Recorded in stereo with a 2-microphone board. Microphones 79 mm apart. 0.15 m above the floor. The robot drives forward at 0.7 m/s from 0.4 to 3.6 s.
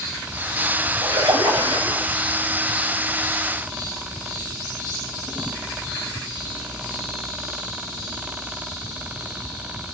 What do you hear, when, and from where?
1.0 s a splash: 55° right (ahead or behind), 8 m; by 2.0 s 50° right (ahead or behind), 8.5 m